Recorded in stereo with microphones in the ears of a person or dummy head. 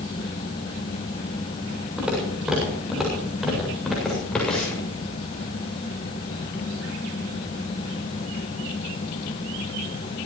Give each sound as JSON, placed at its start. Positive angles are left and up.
{"t": 2.0, "sound": "footsteps", "side_deg": -10, "distance_m": 7.0}